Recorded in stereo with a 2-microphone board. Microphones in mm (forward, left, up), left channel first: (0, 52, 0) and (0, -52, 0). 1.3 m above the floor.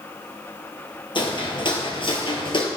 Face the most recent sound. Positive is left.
turn(degrees=50)  # may be behind; listen again after turning